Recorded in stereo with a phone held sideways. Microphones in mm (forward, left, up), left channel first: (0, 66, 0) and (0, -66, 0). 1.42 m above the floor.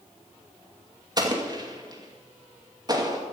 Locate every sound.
1.2 s an explosion: 30° right (ahead or behind), 2.5 m